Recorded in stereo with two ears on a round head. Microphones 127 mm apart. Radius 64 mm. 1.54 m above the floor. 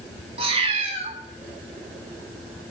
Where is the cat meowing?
45° right (ahead or behind), 2.5 m.